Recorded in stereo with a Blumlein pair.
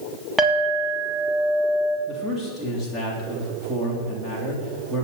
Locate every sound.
0.4 s a clink: 5° right, 3 m
2.1 s a man speaking: straight ahead, 3.5 m